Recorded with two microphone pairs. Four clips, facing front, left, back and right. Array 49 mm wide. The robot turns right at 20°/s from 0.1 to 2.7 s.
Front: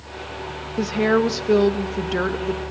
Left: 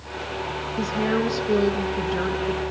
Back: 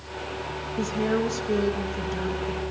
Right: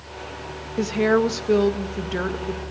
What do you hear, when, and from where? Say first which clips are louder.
0.8 s a woman speaking: right 5 dB, front 7 dB; 50° right, 1.6 m; by 2.6 s 10° right, 1.6 m